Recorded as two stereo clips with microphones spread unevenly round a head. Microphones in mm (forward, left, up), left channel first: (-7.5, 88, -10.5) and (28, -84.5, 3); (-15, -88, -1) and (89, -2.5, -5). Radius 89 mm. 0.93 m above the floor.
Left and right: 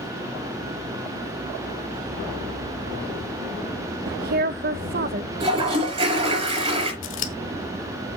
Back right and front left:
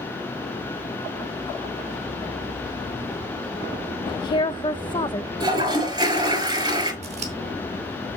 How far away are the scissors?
About 1.4 m.